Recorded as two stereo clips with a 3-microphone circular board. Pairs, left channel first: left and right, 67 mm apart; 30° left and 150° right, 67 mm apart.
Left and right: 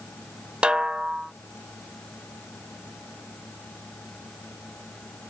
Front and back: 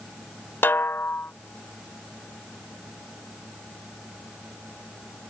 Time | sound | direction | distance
0.6 | a snare drum | 20° right | ?